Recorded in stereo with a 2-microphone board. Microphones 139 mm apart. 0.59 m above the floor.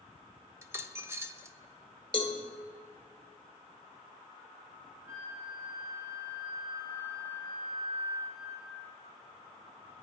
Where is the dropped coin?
20° right (ahead or behind), 0.7 m.